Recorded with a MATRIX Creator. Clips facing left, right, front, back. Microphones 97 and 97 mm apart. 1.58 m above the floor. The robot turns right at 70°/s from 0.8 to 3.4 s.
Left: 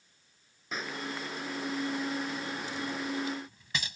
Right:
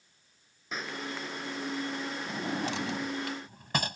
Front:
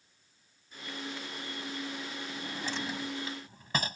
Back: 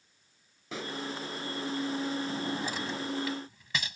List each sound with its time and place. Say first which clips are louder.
0.7 s a pop: even, back 7 dB; straight behind; by 1.0 s 165° right
2.3 s a drawer: right 4 dB, back 5 dB; 130° right; by 4.0 s 50° right